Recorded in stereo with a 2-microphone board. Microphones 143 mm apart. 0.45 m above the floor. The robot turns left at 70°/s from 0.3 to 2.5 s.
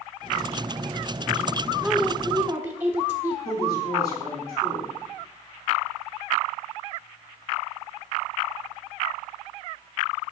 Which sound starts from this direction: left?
A woman speaking, at 3.5 s.